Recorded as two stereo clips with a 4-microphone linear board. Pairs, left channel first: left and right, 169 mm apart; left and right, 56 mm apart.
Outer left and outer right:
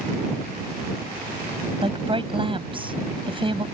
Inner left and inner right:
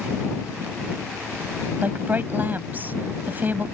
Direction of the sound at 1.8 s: 30° right (ahead or behind).